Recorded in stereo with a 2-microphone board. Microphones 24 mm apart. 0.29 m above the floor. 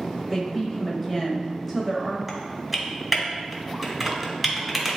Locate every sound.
0.3 s a woman speaking: 10° left (ahead or behind), 1.1 m
2.3 s typing on a keyboard: centre (ahead or behind), 1.9 m